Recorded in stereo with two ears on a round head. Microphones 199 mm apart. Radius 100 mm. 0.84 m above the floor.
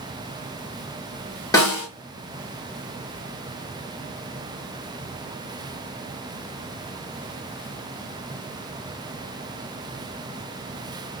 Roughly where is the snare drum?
Centre.